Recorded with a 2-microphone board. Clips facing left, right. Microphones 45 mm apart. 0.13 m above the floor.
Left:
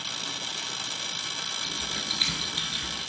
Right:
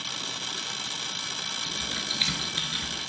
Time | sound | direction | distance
1.6 | typing on a keyboard | 15° right (ahead or behind) | 2 m